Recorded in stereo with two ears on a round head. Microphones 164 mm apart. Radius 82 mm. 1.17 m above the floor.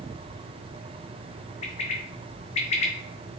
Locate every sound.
1.6 s a bird: 35° left (ahead or behind), 0.6 m